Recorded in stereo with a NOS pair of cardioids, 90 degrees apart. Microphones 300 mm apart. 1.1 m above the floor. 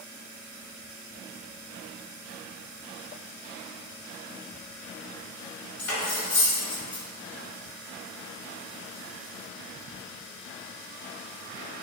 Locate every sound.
5.8 s cutlery clinking: 65° left, 1.3 m